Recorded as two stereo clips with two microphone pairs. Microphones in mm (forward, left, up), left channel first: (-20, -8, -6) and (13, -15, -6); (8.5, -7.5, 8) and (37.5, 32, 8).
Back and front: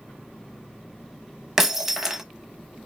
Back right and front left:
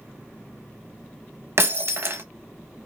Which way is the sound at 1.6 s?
70° left.